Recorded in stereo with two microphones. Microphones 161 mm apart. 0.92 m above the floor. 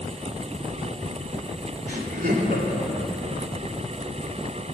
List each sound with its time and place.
1.9 s laughter: 70° right (ahead or behind), 2 m